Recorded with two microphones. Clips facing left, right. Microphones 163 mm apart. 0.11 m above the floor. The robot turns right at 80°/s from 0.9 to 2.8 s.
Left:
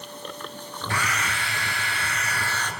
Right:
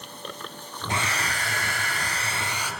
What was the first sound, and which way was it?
A hair dryer, 150° right.